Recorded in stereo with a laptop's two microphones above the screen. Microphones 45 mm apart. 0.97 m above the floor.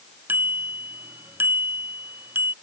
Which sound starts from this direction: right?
A bicycle bell, at 0.3 s.